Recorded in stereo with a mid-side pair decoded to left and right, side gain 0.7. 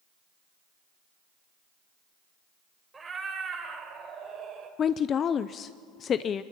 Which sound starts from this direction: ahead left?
A woman speaking, at 4.8 s.